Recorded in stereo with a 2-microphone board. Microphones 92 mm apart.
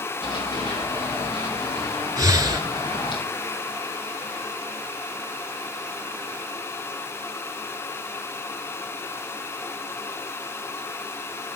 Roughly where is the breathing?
Right.